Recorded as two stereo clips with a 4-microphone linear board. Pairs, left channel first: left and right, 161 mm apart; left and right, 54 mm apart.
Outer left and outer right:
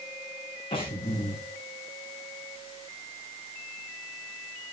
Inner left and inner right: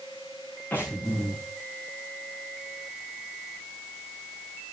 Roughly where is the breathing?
Left.